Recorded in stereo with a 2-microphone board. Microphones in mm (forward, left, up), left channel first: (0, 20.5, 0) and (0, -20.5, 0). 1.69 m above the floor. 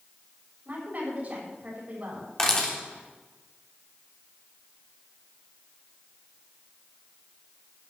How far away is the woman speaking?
About 8 m.